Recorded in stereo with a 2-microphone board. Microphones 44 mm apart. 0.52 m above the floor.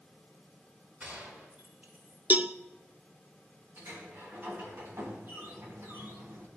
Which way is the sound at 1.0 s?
35° right (ahead or behind).